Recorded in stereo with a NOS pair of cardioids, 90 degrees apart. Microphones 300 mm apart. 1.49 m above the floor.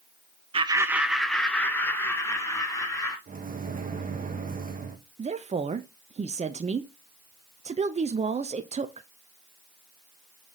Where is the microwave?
25° right, 1.3 m.